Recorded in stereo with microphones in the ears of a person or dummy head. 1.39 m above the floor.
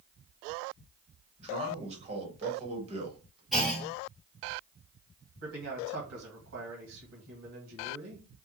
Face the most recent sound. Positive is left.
turn(degrees=-70)  # may be behind; listen again after turning